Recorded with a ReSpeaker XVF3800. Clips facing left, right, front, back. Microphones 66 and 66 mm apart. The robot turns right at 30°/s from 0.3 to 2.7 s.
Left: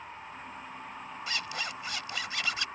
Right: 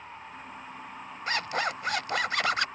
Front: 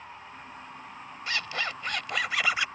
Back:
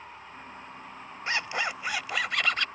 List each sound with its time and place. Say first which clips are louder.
1.3 s a zipper: right 8 dB, back 2 dB; 120° right; by 2.7 s 75° right